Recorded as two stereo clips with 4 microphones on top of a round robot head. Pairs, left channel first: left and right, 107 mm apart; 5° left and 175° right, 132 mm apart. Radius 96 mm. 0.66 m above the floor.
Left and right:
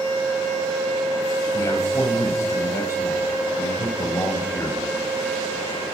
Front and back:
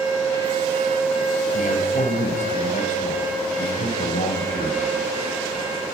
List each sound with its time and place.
1.5 s a man speaking: 30° left, 4.5 m